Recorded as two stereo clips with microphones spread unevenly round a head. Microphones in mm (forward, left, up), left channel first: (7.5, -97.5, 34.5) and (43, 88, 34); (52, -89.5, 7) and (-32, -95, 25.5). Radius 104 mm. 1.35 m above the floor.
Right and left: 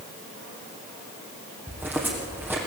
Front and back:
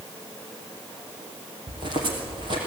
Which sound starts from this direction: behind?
Footsteps, at 1.7 s.